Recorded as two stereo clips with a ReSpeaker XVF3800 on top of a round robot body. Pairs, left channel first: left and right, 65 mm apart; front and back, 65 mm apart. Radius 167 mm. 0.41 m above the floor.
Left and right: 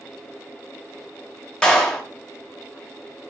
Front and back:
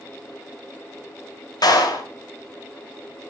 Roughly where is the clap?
Ahead.